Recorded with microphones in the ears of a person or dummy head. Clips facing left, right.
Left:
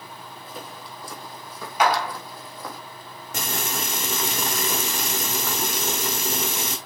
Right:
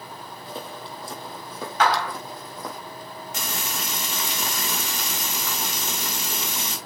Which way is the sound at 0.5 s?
30° right (ahead or behind).